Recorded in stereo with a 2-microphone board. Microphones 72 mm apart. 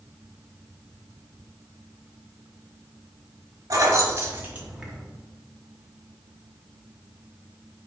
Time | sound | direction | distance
3.7 | keys jangling | 50° right (ahead or behind) | 0.9 m